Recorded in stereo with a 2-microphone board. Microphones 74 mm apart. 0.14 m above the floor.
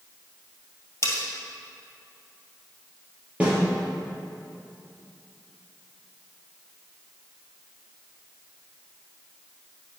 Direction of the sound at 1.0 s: 35° left (ahead or behind).